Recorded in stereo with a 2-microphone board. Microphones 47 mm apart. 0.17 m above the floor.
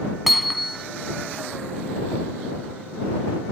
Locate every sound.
0.3 s hammering: centre (ahead or behind)